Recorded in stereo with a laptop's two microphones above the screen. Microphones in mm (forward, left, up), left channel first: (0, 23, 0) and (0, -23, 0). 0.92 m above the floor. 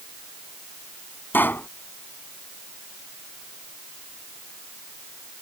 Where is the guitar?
No guitar in this recording.